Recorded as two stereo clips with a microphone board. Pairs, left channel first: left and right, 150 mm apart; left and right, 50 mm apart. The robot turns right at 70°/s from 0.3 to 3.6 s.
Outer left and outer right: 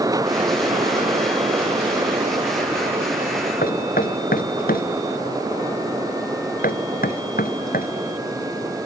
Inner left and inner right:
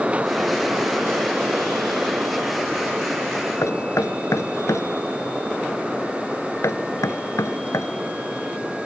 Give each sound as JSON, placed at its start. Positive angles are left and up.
{"t": 3.6, "sound": "knocking", "side_deg": 70}